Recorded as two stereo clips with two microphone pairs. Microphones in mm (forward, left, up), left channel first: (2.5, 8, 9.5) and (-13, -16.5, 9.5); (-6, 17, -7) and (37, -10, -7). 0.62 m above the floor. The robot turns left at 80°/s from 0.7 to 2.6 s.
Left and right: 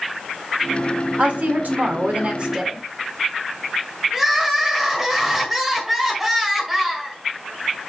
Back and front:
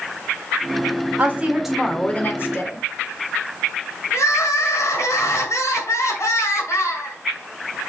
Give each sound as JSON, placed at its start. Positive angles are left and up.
{"t": 1.2, "sound": "a woman speaking", "azimuth_deg": -80, "distance_m": 1.8}
{"t": 4.1, "sound": "crying", "azimuth_deg": 160, "distance_m": 1.6}